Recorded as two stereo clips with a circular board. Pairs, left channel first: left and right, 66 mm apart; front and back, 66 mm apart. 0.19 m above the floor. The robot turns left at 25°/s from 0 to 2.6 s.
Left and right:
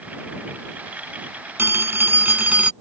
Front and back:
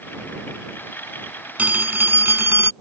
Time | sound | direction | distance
1.6 | a phone ringing | 125° right | ?